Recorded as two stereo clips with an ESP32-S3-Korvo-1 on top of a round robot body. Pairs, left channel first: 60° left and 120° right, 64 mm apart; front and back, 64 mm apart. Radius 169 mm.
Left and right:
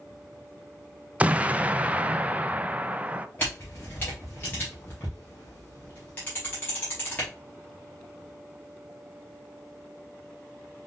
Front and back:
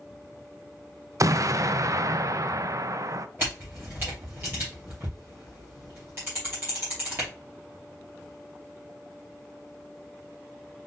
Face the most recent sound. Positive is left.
turn(degrees=120)